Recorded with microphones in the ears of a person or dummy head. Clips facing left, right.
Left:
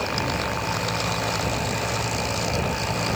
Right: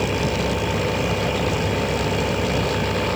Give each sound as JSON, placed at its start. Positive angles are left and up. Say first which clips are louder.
{"t": 0.0, "sound": "an engine running", "louder": "right 5 dB", "side_deg": -50}